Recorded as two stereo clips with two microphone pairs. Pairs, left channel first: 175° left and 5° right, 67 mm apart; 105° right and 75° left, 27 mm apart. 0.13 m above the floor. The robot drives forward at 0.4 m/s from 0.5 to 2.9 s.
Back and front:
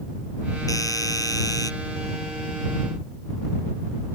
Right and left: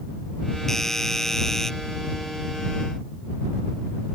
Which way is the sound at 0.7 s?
Straight behind.